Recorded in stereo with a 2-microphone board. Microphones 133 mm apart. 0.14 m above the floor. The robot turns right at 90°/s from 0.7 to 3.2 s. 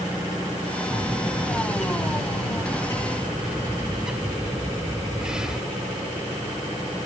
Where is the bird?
20° right; by 5.6 s 175° right.